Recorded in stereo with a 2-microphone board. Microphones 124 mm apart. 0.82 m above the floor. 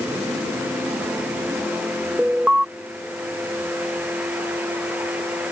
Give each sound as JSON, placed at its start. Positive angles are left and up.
{"t": 2.2, "sound": "an alarm", "side_deg": -5}